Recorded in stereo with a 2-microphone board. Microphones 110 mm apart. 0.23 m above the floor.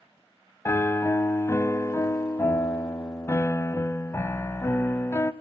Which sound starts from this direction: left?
A piano, at 0.7 s.